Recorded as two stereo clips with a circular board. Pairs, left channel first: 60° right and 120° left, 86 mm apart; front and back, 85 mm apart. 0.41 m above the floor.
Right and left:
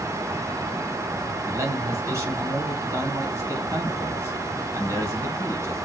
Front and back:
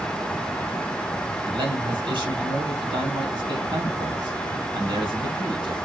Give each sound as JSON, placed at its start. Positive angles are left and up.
{"t": 1.4, "sound": "a man speaking", "azimuth_deg": 170, "distance_m": 3.5}